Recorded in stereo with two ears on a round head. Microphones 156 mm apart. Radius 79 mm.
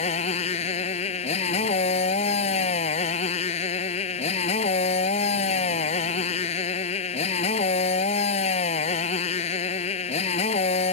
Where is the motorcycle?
40° left (ahead or behind).